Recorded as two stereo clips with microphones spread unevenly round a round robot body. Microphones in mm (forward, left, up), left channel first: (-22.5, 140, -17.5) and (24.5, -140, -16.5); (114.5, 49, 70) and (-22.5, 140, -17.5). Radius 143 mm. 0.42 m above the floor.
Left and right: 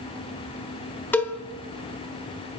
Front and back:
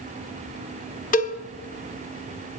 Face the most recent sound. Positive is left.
turn(degrees=20)